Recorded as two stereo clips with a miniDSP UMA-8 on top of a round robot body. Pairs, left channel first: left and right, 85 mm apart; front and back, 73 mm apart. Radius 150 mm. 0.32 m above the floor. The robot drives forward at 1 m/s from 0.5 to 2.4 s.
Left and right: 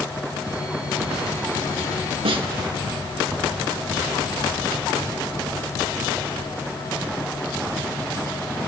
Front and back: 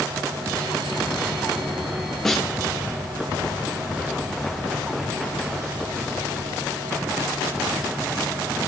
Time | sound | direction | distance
2.2 | a snare drum | 85° right | 2.5 m